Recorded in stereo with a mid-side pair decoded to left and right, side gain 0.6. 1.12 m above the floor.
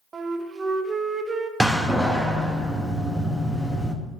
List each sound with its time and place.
0.1 s a flute: 30° right, 0.7 m
1.6 s a door slam: 5° right, 1.0 m